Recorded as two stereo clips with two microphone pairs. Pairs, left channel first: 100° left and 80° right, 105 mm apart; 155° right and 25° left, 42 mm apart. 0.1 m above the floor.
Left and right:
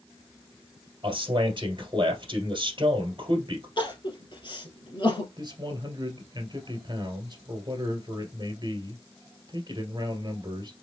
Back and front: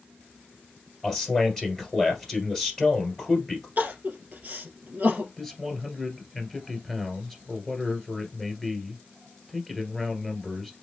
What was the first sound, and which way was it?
A man speaking, 75° right.